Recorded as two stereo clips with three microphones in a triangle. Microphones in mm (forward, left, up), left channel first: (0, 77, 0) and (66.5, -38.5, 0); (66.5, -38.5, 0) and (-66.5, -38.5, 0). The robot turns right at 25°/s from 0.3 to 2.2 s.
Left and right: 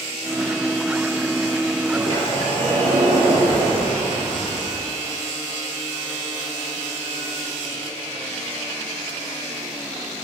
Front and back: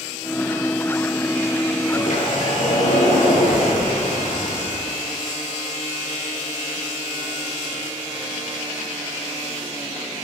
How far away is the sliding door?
About 2.5 m.